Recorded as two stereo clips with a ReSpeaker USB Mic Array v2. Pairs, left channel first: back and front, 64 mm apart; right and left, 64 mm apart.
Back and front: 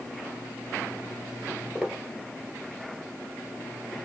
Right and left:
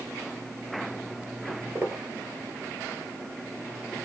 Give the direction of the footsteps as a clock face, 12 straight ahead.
10 o'clock.